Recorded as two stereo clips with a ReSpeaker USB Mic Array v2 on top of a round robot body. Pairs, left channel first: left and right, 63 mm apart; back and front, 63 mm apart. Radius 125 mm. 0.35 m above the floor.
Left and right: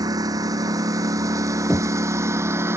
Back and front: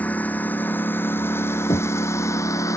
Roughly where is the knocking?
Behind.